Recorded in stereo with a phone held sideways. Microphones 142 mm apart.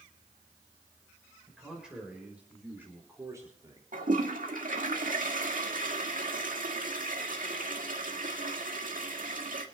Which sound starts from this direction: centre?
A man speaking, at 1.5 s.